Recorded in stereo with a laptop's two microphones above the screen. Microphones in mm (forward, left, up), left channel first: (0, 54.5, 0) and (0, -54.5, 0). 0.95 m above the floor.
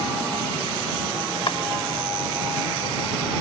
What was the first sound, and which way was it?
Chopping, 55° left (ahead or behind).